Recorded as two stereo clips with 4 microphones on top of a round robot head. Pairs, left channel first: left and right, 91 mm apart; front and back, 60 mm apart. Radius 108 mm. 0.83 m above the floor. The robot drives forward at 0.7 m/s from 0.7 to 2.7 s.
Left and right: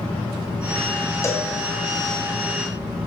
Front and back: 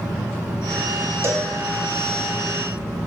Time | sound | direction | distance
1.2 | a cowbell | 145° left | 1.0 m